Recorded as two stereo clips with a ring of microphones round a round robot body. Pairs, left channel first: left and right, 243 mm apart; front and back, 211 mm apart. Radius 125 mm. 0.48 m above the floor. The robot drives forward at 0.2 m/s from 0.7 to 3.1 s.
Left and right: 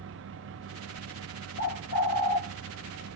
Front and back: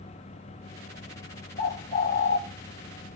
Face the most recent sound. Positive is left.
turn(degrees=65)